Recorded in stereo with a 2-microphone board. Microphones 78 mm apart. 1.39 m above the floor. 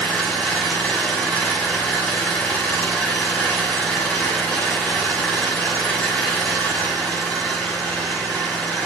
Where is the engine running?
15° left (ahead or behind), 5 m.